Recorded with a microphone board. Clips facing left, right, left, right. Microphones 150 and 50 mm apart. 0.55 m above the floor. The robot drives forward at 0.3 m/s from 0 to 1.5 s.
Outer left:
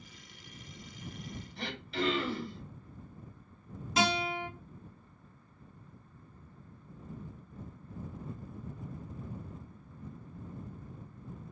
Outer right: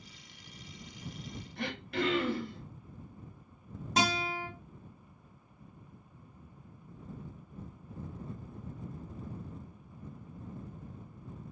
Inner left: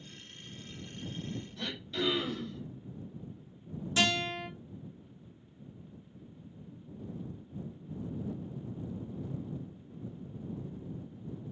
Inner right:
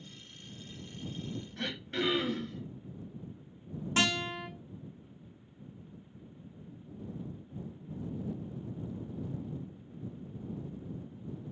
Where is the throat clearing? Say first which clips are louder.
Outer right 2 dB, inner right 2 dB; 55° right (ahead or behind), 1.4 m.